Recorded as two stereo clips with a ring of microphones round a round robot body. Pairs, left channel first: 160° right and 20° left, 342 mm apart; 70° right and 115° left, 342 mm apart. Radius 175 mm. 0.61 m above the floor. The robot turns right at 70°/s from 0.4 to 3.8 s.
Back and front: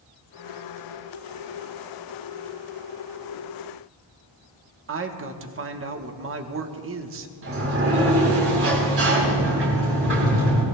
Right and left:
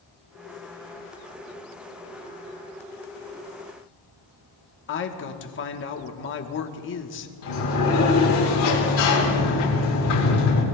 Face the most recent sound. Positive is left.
turn(degrees=-30)